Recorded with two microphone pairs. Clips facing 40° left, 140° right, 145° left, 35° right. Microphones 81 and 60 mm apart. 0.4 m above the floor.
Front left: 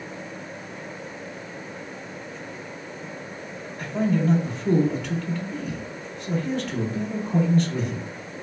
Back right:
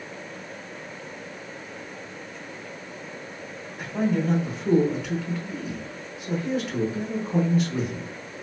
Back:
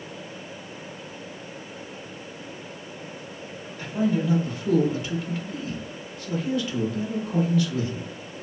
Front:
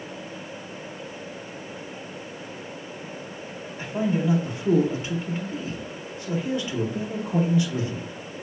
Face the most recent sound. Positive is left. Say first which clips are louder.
# front left 1 dB, back 1 dB
turn(degrees=-70)